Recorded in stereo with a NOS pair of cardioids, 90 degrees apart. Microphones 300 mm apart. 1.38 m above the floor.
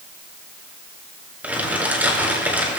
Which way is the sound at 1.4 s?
5° right.